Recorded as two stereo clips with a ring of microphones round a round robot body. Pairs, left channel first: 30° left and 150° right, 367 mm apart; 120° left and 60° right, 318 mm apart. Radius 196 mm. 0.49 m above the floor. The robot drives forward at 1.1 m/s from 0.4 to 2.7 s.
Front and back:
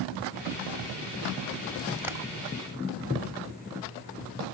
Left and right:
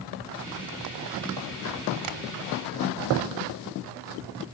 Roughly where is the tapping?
Ahead right.